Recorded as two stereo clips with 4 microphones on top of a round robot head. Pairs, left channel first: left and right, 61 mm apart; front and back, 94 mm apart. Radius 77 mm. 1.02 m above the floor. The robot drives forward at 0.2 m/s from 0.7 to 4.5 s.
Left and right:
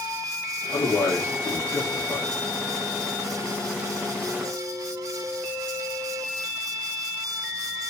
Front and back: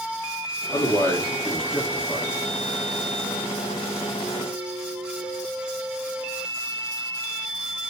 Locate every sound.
0.7 s a man speaking: 60° left, 0.7 m; by 2.3 s 90° left, 0.6 m